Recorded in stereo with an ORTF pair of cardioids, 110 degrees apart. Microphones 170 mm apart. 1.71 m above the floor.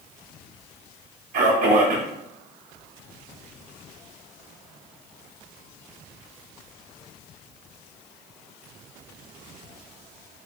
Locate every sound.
1.3 s a man speaking: 50° right, 0.7 m